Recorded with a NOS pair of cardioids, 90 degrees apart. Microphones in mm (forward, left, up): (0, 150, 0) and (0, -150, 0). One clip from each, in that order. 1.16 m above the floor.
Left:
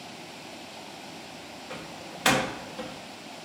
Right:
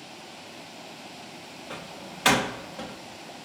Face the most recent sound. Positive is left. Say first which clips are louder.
# right 1 dB
turn(degrees=-10)